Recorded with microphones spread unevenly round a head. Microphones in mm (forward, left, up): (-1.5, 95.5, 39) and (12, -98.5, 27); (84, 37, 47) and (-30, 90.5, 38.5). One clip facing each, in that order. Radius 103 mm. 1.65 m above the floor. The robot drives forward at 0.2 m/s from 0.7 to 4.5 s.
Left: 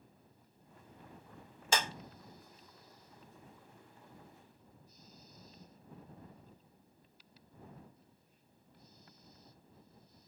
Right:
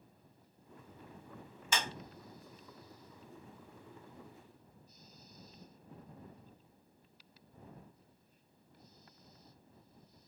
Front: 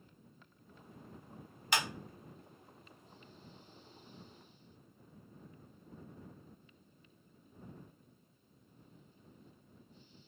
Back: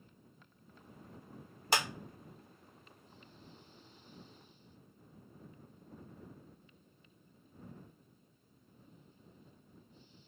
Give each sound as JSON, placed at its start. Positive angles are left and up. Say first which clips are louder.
{"t": 1.7, "sound": "a clap", "louder": "left 4 dB, back 2 dB", "azimuth_deg": 120, "distance_m": 0.6}